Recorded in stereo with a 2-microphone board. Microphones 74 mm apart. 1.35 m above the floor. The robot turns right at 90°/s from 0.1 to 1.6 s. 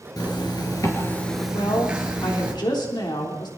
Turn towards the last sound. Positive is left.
turn(degrees=85)